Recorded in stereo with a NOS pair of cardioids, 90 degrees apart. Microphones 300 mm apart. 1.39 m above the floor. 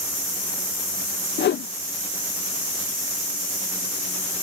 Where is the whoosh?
35° left.